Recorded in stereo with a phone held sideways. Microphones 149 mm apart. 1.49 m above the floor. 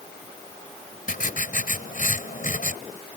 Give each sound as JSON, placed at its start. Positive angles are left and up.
{"t": 1.1, "sound": "writing", "side_deg": 70}